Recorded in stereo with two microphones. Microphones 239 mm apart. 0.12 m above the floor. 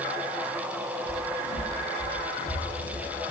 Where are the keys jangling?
I don't hear keys jangling.